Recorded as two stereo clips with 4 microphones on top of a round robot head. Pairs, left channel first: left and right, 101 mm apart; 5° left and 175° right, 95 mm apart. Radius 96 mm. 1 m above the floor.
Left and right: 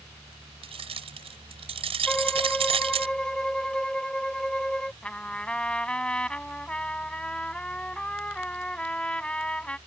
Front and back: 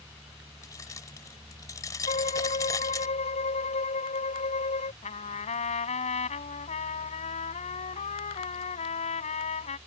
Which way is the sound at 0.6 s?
60° right.